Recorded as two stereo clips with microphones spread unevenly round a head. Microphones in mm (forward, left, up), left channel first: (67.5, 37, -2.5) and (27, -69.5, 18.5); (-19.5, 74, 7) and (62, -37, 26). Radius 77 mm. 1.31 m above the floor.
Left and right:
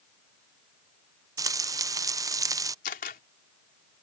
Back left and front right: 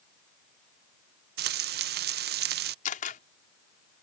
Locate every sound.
1.4 s frying: 50° right
2.9 s a camera shutter: 95° left